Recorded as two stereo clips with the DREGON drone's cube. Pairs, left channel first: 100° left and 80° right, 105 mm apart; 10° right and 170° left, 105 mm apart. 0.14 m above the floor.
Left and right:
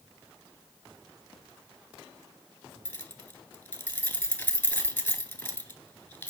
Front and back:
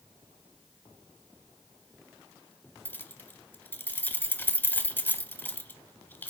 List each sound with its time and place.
2.9 s keys jangling: 50° left, 1.0 m